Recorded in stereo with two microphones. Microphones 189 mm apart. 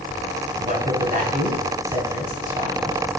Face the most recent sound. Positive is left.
turn(degrees=-45)  # may be behind; listen again after turning